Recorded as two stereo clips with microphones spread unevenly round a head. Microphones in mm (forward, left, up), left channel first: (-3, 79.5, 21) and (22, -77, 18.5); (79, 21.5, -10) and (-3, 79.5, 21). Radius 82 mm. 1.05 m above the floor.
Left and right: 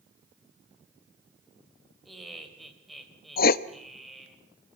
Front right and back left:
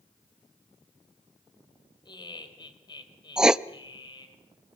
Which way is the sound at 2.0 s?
10° left.